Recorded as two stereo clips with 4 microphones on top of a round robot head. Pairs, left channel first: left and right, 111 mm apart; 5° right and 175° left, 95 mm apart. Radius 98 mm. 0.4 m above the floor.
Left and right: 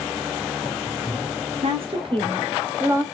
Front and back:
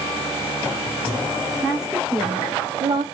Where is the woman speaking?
95° right, 1.6 m; by 3.0 s 155° right, 1.5 m.